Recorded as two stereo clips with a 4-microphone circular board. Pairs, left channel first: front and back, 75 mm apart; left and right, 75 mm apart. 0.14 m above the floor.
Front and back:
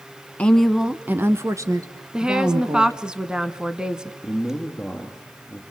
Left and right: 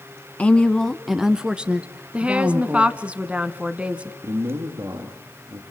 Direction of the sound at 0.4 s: 45° left.